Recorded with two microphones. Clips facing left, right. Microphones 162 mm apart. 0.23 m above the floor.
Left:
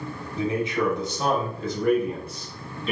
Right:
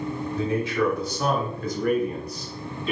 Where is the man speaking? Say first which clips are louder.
Even; 15° left (ahead or behind), 1.2 m; by 2.9 s 30° left (ahead or behind), 2.0 m.